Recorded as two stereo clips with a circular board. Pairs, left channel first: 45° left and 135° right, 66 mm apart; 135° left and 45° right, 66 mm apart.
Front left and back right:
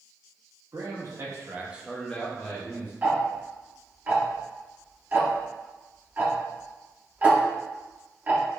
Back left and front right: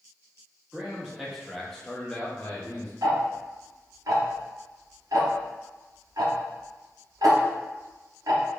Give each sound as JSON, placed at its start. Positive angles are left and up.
{"t": 0.7, "sound": "a man speaking", "azimuth_deg": -125, "distance_m": 1.2}
{"t": 3.0, "sound": "ticking", "azimuth_deg": -70, "distance_m": 0.7}